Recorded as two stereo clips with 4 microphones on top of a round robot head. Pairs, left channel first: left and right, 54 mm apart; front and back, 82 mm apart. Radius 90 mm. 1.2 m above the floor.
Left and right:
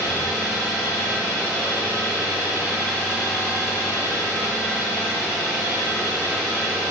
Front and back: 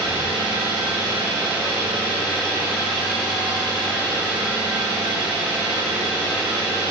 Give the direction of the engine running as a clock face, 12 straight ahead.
8 o'clock.